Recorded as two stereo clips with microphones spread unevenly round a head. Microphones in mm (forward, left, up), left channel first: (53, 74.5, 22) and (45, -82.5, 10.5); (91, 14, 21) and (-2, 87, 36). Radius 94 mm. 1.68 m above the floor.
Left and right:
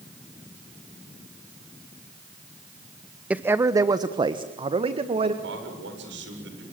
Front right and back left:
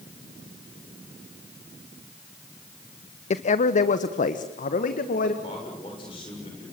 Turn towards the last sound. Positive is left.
turn(degrees=-100)